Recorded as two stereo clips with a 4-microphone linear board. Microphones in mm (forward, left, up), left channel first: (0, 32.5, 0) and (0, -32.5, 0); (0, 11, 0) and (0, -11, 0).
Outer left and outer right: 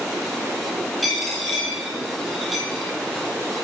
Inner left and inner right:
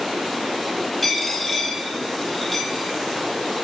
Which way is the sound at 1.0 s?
Centre (ahead or behind).